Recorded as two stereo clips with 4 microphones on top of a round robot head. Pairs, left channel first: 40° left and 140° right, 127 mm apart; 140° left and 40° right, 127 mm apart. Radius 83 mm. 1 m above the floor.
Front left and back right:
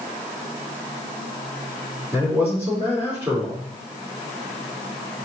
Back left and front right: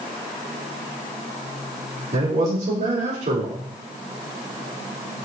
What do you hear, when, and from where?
2.1 s a man speaking: 70° right, 3.5 m